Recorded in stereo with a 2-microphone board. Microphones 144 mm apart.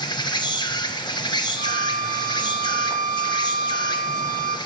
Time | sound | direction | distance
0.0 | an insect | 30° left (ahead or behind) | 0.9 m
1.6 | a violin | 70° right (ahead or behind) | 0.6 m